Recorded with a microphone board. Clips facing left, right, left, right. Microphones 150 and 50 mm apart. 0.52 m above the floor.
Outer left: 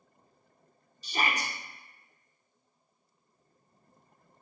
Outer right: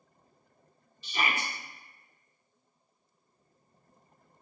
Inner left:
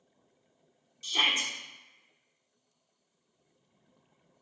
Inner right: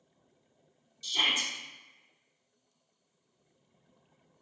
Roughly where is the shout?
Left.